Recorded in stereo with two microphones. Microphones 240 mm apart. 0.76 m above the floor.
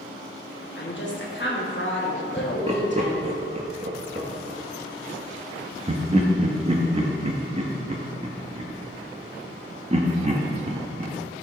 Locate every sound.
0.8 s a woman speaking: 50° left (ahead or behind), 1.1 m
2.4 s laughter: 30° right (ahead or behind), 0.8 m